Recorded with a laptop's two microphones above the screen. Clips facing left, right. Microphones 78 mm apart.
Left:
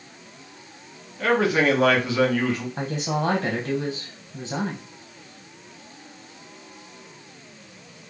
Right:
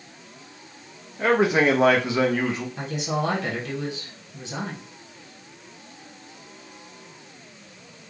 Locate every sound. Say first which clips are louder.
1.2 s a man speaking: right 1 dB; 20° right (ahead or behind), 0.8 m
2.8 s a woman speaking: left 1 dB; 35° left (ahead or behind), 0.9 m